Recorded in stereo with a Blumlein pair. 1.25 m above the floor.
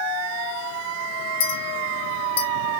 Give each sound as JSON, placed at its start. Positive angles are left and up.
{"t": 1.4, "sound": "a clink", "azimuth_deg": 55, "distance_m": 0.7}